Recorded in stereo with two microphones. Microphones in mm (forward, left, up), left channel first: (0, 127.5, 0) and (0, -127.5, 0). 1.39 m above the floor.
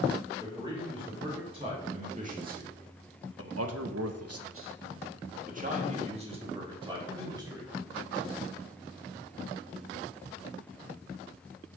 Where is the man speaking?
15° right (ahead or behind), 3.5 m.